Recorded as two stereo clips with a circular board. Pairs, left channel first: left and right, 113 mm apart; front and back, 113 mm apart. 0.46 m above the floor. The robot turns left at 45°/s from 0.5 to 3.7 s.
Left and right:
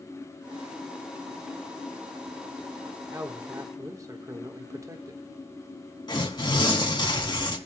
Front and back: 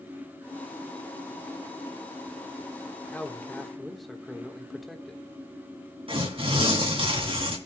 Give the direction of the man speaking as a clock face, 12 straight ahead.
2 o'clock.